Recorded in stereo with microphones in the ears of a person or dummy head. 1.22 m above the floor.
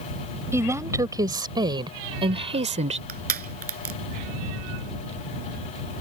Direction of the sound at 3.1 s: 45° right (ahead or behind).